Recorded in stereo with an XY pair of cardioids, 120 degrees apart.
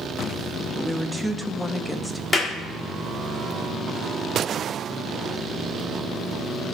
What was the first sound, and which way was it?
A woman speaking, 5° right.